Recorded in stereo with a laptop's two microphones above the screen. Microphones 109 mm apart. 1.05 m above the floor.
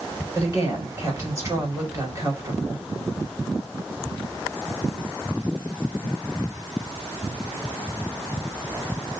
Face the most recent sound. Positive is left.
turn(degrees=-30)  # may be behind; listen again after turning